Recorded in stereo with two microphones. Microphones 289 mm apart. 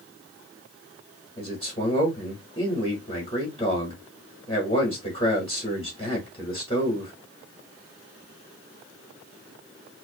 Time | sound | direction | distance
1.4 | a man speaking | 20° left (ahead or behind) | 1.1 m